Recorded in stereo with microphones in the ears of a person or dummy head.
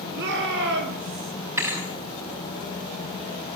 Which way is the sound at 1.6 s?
15° right (ahead or behind).